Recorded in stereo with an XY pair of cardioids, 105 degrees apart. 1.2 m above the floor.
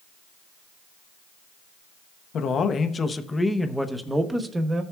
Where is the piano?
I don't hear a piano.